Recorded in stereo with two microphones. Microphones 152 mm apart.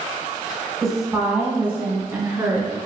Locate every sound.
0.8 s a woman speaking: centre (ahead or behind), 1.5 m; by 2.8 s 20° right (ahead or behind), 1.7 m